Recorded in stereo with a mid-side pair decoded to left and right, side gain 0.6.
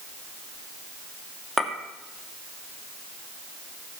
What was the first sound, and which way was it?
A clink, 10° right.